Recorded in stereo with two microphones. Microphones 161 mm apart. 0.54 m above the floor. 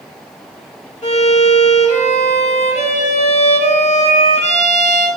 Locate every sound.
1.0 s a violin: 45° left (ahead or behind), 1.2 m